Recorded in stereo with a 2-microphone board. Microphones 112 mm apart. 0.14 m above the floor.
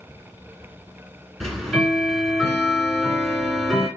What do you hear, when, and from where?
1.4 s ticking: centre (ahead or behind), 1.3 m